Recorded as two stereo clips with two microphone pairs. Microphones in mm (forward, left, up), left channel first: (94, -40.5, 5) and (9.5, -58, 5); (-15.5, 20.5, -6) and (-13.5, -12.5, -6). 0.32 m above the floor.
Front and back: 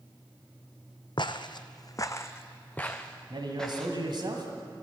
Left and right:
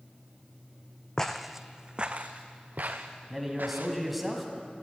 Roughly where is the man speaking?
Behind.